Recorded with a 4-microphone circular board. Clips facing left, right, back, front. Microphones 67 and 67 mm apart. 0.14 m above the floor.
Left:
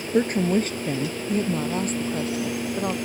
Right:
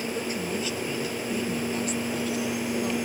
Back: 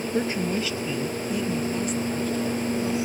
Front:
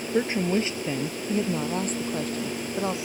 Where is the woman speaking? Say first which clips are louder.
Left 9 dB, front 3 dB; 70° left; by 2.9 s 40° left.